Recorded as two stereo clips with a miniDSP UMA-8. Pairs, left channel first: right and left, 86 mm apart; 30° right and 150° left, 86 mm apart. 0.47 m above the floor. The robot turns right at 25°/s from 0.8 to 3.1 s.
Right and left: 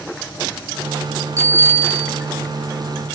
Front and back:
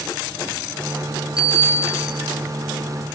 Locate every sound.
1.4 s a bicycle bell: 145° left, 7 m; by 2.1 s 165° left, 7 m